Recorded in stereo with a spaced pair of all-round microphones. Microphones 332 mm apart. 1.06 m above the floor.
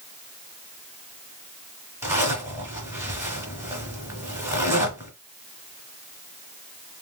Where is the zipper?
10° right (ahead or behind), 1.9 m.